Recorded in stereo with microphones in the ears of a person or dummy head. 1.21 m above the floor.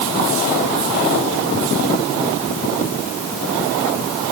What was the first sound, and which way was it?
Only background noise.